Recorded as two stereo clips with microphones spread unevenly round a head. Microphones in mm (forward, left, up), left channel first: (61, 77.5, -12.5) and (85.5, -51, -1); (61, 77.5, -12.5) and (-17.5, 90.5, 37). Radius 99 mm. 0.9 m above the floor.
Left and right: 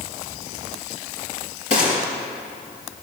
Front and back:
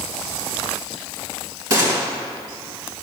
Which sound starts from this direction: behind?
A gunshot, at 1.7 s.